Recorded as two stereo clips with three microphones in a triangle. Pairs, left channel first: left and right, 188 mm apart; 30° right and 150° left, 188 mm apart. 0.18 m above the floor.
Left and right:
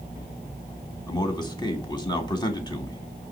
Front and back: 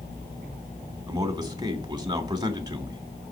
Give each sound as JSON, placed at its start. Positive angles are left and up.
{"t": 1.1, "sound": "a man speaking", "azimuth_deg": 115, "distance_m": 1.2}